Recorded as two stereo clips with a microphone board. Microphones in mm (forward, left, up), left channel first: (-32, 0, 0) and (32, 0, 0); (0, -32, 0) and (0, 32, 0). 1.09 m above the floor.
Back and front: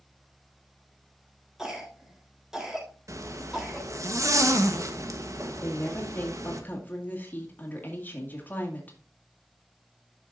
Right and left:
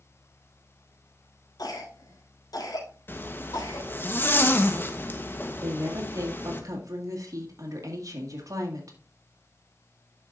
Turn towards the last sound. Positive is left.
turn(degrees=115)